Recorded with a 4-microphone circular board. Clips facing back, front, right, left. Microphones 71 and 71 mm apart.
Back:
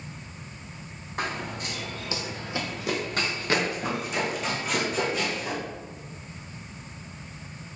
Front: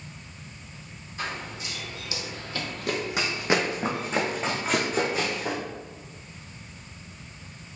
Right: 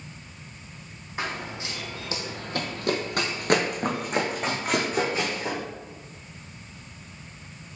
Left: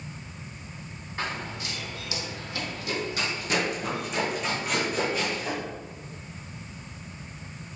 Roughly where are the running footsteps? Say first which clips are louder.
Back 3 dB, right 1 dB; behind.